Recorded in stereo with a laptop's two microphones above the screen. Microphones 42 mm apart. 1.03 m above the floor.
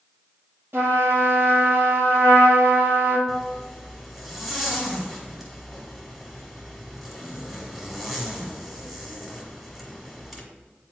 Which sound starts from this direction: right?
A trumpet, at 0.7 s.